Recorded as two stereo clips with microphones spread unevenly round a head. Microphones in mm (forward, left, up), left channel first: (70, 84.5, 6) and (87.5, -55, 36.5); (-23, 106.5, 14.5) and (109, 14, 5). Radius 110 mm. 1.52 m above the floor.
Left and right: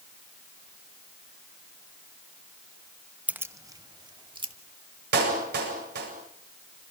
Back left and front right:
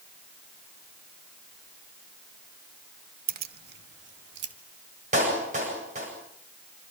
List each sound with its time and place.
3.3 s keys jangling: 10° right, 1.1 m; by 4.5 s 30° right, 3 m
5.1 s a clap: 100° right, 8 m